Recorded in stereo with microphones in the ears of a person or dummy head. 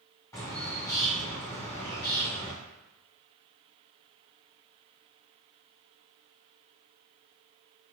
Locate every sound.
0.3 s a bird: 15° left (ahead or behind), 0.7 m